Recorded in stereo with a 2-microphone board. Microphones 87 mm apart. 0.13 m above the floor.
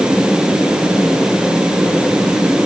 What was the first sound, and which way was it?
Only background noise.